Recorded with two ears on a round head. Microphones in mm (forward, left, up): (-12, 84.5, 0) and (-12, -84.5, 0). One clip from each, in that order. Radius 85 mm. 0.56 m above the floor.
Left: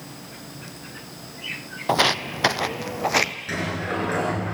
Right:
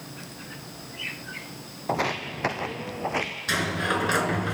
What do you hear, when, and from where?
1.9 s footsteps: 50° left (ahead or behind), 1.0 m; by 3.3 s 65° left (ahead or behind), 1.3 m
3.5 s a sliding door: 85° right, 4 m